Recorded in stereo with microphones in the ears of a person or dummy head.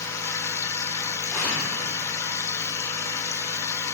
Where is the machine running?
15° left (ahead or behind), 0.8 m.